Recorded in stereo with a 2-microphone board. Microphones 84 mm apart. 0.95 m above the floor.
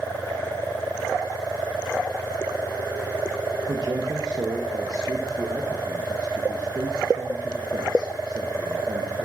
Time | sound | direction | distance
3.7 | a man speaking | 45° right (ahead or behind) | 0.8 m